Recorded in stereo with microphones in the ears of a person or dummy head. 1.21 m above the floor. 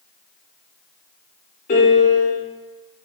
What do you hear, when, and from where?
1.7 s a piano: 35° left (ahead or behind), 0.6 m